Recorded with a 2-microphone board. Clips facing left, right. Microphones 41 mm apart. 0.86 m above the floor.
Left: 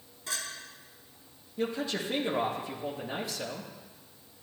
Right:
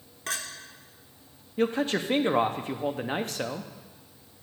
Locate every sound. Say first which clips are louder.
0.3 s a clink: right 4 dB; 70° right (ahead or behind), 1.1 m
1.6 s a man speaking: right 6 dB; 55° right (ahead or behind), 0.8 m